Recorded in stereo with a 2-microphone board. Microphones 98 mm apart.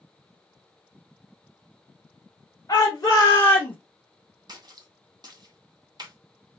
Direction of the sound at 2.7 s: 35° left (ahead or behind).